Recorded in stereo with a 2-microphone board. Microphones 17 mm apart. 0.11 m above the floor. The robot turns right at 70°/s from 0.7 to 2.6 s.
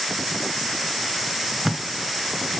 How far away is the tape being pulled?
About 0.8 m.